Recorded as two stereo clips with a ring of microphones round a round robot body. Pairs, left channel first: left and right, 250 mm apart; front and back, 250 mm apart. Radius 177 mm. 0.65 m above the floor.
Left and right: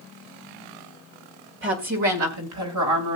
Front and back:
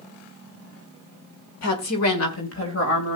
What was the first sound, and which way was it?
A woman speaking, 35° right.